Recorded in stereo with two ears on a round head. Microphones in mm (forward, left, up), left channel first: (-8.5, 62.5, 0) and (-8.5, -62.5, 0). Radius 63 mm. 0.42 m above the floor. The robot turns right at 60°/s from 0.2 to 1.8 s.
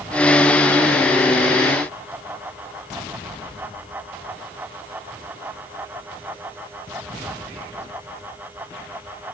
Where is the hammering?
No hammering in this recording.